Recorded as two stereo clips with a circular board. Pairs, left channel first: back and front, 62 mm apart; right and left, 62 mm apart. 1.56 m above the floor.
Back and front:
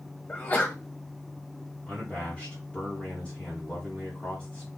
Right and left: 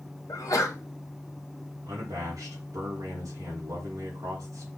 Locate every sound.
0.3 s a sneeze: 120° right, 1.1 m
1.9 s a man speaking: 105° left, 1.2 m